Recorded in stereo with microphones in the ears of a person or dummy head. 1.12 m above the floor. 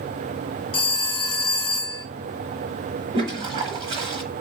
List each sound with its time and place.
0.7 s a phone ringing: 25° left (ahead or behind), 1.3 m
3.1 s a toilet flushing: 30° right (ahead or behind), 1.0 m